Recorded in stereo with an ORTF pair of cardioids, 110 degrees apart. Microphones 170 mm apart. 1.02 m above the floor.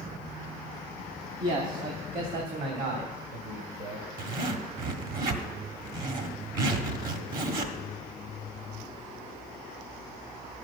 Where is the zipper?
55° right, 1.6 m.